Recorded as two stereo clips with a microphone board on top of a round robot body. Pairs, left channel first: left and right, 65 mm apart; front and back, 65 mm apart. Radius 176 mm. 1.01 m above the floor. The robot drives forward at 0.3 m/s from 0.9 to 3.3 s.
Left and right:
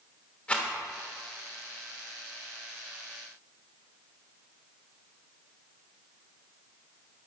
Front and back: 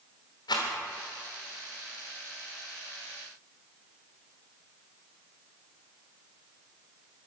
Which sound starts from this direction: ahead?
A rattle, at 0.5 s.